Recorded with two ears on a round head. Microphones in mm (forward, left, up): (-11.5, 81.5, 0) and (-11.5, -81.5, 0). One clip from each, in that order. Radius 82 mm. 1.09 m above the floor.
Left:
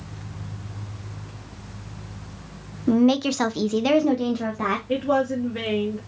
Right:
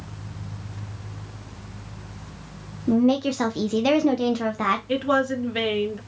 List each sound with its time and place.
2.9 s a woman speaking: 45° left (ahead or behind), 0.6 m; by 4.8 s 35° right (ahead or behind), 0.7 m
4.9 s a woman speaking: 75° right (ahead or behind), 1.8 m